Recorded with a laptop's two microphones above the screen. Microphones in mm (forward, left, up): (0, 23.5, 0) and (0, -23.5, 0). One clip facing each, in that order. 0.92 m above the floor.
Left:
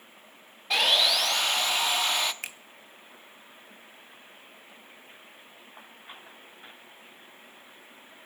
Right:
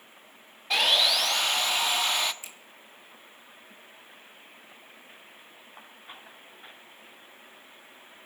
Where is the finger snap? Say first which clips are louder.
Left 8 dB; 65° left (ahead or behind), 0.6 m.